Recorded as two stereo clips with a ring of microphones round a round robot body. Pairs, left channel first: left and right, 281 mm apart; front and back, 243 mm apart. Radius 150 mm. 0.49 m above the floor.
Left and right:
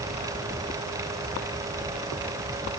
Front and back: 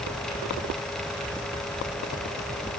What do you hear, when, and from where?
Only background noise.